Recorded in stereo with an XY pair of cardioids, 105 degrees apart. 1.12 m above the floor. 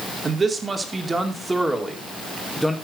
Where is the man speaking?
35° right, 2.5 m; by 2.7 s straight ahead, 2.5 m.